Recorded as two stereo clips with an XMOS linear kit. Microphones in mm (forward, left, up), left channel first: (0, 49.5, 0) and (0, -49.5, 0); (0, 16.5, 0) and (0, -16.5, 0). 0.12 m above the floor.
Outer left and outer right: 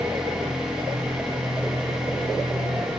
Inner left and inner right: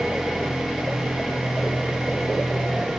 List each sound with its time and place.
0.0 s an engine running: 5° right (ahead or behind), 9.5 m